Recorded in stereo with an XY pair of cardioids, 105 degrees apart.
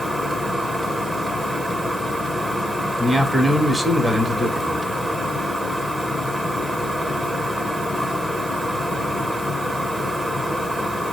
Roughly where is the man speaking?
Ahead.